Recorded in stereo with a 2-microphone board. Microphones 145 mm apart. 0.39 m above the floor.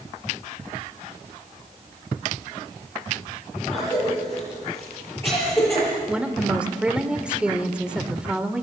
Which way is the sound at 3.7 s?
15° left (ahead or behind).